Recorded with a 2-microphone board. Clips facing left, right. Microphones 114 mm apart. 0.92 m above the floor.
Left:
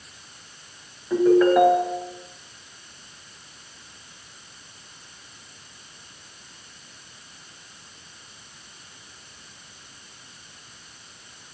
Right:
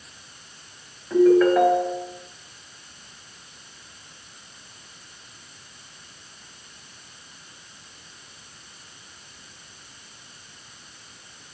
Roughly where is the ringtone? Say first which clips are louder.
Right 1 dB; centre.